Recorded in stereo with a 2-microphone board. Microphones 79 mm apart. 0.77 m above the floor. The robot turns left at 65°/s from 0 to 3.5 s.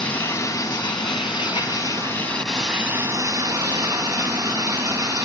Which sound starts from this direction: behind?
Running water, at 0.0 s.